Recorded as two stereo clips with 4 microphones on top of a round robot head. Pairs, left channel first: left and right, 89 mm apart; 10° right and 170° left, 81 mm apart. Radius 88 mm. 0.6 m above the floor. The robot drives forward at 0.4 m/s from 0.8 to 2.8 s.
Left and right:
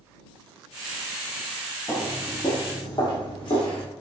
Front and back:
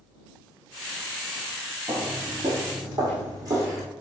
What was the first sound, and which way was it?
Footsteps, straight behind.